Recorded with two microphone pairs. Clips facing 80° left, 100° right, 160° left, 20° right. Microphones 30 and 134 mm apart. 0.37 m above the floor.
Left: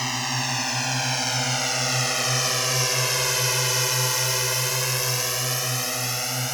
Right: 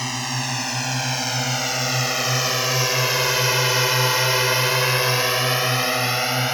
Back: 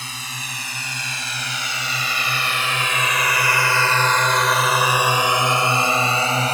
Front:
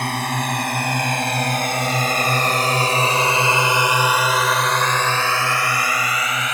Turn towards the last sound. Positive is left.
turn(degrees=-155)